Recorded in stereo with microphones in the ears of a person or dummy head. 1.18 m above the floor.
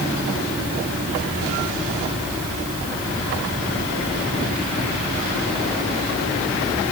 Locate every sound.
Only background noise.